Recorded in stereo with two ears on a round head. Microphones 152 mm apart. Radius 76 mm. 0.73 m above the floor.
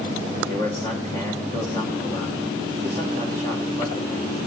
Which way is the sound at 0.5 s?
20° left (ahead or behind).